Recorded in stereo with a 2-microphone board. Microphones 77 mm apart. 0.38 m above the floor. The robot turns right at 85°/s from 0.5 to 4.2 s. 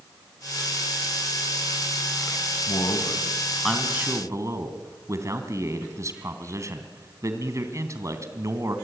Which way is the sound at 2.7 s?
90° left.